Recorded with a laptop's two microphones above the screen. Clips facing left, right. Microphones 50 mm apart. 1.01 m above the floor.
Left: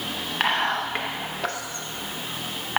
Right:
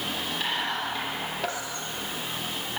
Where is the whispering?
60° left (ahead or behind), 1.0 m.